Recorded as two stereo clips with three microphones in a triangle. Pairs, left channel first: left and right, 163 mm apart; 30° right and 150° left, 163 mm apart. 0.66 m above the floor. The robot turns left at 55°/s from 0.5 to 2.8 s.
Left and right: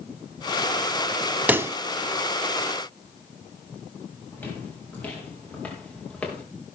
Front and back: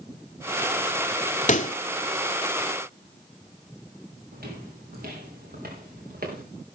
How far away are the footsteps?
About 6 m.